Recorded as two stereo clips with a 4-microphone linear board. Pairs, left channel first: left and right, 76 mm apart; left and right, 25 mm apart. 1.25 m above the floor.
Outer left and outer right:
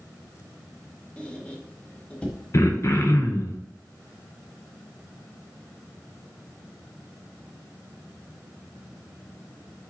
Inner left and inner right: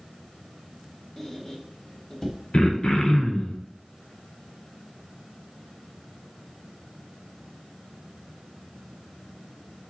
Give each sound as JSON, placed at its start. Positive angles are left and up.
{"t": 1.2, "sound": "a squeak", "side_deg": 15, "distance_m": 0.8}
{"t": 2.5, "sound": "throat clearing", "side_deg": 40, "distance_m": 0.6}